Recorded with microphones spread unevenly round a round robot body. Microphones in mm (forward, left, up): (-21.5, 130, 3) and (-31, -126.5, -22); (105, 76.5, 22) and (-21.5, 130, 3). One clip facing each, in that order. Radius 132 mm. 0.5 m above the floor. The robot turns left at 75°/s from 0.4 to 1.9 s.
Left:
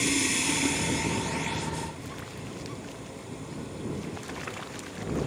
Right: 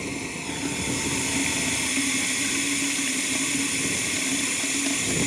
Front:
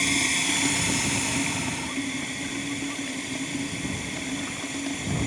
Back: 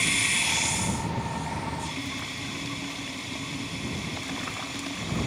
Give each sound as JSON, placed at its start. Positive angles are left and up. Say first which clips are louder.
{"t": 0.0, "sound": "running water", "louder": "left 3 dB, front 5 dB", "azimuth_deg": 20}